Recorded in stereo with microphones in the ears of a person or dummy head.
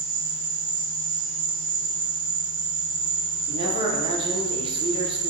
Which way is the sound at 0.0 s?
50° right (ahead or behind).